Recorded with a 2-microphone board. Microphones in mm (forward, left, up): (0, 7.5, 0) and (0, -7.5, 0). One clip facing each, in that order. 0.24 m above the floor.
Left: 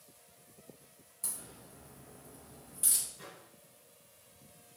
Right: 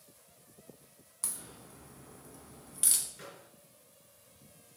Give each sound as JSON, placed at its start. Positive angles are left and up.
{"t": 1.2, "sound": "a crack", "side_deg": -60, "distance_m": 1.0}
{"t": 3.2, "sound": "a microwave", "side_deg": -70, "distance_m": 2.5}